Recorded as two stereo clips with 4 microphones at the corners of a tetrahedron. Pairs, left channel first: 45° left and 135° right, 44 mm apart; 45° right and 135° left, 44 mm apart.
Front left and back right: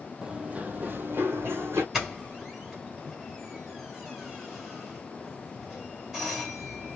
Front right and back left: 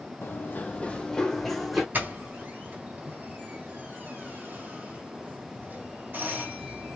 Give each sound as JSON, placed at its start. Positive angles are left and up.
{"t": 0.2, "sound": "running footsteps", "azimuth_deg": -65, "distance_m": 0.8}
{"t": 1.9, "sound": "a doorbell", "azimuth_deg": 150, "distance_m": 1.9}